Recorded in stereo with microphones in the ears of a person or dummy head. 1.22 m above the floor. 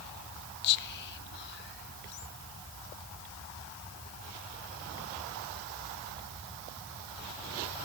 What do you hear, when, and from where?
0.6 s whispering: 55° left (ahead or behind), 0.7 m